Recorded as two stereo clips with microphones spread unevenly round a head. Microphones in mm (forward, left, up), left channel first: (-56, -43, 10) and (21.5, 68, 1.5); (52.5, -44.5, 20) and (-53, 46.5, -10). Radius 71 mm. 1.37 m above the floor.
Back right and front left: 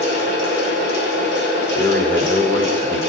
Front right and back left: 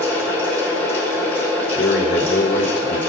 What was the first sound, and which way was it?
A fan, 120° right.